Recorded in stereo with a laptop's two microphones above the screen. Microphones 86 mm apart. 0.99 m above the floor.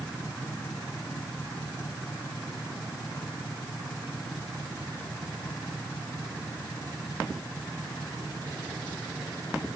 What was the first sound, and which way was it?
Only background noise.